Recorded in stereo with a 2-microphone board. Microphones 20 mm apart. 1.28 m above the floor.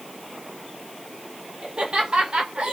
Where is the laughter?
55° right (ahead or behind), 2 m; by 2.7 s 70° right (ahead or behind), 1.5 m.